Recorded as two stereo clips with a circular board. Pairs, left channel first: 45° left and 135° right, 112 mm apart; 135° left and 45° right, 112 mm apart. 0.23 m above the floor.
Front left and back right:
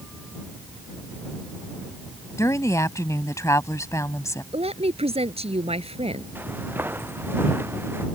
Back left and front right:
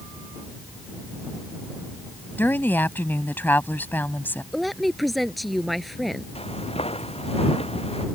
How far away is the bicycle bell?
No bicycle bell in this recording.